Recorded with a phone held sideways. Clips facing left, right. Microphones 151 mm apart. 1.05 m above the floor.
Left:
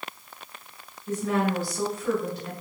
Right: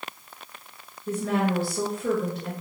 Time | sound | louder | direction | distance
1.1 | a woman speaking | right 1 dB | 75° right (ahead or behind) | 1.3 m